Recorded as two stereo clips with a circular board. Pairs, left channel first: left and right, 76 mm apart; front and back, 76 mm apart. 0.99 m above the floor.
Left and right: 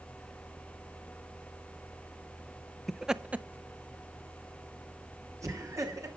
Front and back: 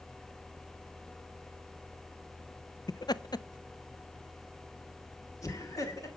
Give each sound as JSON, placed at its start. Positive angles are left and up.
{"t": 2.9, "sound": "laughter", "azimuth_deg": 5, "distance_m": 0.5}